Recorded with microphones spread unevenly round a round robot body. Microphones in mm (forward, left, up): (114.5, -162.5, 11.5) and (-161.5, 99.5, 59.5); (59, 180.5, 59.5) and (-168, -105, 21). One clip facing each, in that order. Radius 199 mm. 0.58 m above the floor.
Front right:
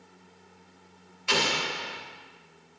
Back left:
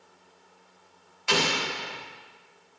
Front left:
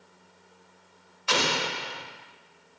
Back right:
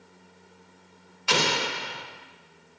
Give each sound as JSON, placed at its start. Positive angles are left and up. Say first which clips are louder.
{"t": 1.3, "sound": "an explosion", "louder": "back left 2 dB, back right 1 dB", "azimuth_deg": 175, "distance_m": 1.0}